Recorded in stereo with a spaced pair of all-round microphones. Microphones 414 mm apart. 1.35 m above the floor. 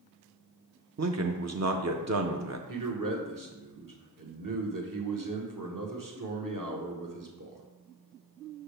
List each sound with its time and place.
1.0 s a man speaking: 45° right (ahead or behind), 0.5 m
2.7 s a man speaking: 55° right (ahead or behind), 1.2 m